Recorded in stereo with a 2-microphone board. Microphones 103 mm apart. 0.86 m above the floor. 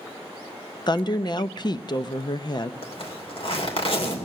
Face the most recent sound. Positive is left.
turn(degrees=65)  # may be behind; listen again after turning